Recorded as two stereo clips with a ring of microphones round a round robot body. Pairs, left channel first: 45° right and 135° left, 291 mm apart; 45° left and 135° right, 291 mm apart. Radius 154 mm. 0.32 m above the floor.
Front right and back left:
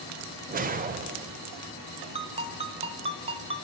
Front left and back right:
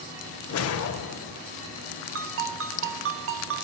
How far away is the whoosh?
About 0.6 m.